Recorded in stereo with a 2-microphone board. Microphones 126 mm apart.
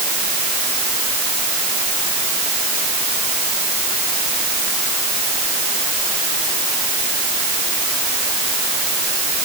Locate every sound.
Only background noise.